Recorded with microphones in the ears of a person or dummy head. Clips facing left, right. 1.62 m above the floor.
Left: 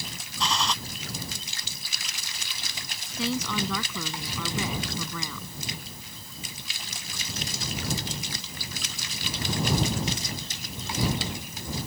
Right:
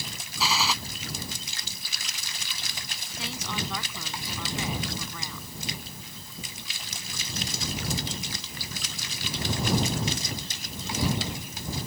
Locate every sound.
0.4 s a gunshot: 5° right (ahead or behind)
3.2 s a woman speaking: 85° left